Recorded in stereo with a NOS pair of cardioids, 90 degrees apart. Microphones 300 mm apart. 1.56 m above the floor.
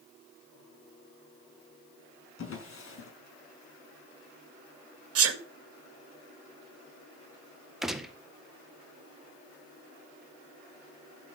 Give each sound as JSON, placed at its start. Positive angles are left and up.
{"t": 2.4, "sound": "a drawer", "azimuth_deg": 50, "distance_m": 5.5}
{"t": 5.2, "sound": "a sneeze", "azimuth_deg": -55, "distance_m": 2.0}
{"t": 7.8, "sound": "a gunshot", "azimuth_deg": 0, "distance_m": 1.7}